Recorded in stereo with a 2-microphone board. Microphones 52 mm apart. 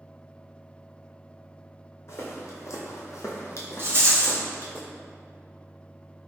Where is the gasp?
I don't hear a gasp.